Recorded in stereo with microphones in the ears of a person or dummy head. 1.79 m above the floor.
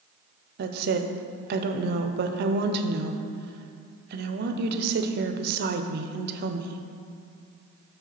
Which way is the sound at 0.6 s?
55° right (ahead or behind).